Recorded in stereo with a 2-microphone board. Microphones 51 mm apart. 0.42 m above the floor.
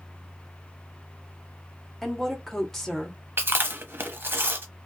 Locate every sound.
2.0 s a woman speaking: 5° left (ahead or behind), 1.1 m
3.4 s chewing: 45° right (ahead or behind), 0.7 m